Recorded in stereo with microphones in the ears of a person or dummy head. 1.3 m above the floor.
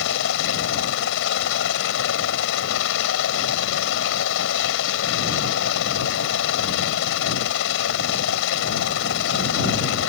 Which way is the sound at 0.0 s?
65° left (ahead or behind).